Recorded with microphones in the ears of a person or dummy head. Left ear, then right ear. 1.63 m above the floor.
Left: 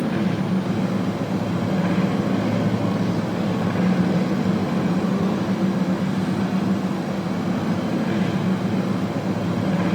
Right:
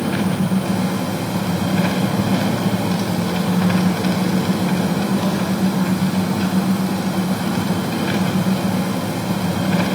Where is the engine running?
60° right (ahead or behind), 3 m.